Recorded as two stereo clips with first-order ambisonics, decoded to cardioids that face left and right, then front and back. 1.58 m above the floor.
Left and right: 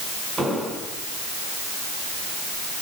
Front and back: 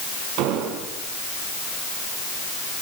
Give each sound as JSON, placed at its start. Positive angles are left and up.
{"t": 0.4, "sound": "an explosion", "azimuth_deg": -170, "distance_m": 5.5}